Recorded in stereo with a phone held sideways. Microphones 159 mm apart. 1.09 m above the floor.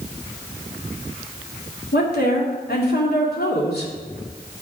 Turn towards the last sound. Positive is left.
turn(degrees=85)